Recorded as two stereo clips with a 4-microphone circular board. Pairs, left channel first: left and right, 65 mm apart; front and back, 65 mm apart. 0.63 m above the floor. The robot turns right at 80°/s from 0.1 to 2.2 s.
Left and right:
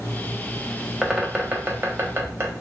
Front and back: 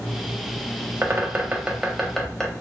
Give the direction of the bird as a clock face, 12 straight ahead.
6 o'clock.